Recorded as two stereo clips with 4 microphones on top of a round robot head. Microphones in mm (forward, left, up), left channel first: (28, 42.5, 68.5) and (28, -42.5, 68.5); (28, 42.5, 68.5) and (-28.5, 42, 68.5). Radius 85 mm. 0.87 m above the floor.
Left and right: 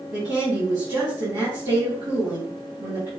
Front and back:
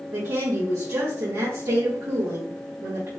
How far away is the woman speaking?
About 2.5 m.